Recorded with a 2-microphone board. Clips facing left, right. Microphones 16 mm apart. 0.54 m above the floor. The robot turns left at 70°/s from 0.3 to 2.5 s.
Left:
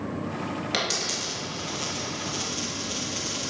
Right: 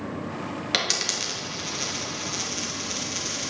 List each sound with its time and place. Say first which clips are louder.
0.7 s a dropped coin: right 3 dB; 20° right (ahead or behind), 1.9 m; by 3.5 s 35° right (ahead or behind), 1.9 m